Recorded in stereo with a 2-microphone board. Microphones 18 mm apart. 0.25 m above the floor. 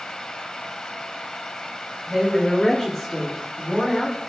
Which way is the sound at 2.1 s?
5° right (ahead or behind).